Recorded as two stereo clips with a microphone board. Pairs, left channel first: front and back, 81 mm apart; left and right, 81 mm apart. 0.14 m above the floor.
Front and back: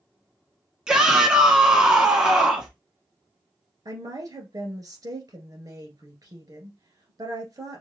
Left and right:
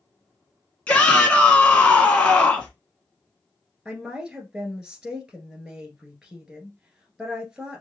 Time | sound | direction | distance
0.9 | a shout | 120° left | 1.2 m
3.9 | a woman speaking | 170° right | 1.8 m